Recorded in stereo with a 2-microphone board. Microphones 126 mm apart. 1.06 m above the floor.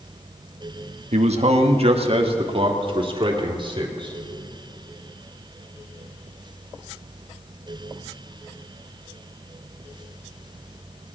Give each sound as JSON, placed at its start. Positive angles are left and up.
{"t": 1.1, "sound": "a man speaking", "side_deg": -60, "distance_m": 1.1}